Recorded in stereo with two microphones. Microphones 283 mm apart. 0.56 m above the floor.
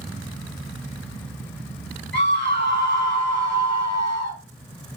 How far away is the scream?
About 1.4 m.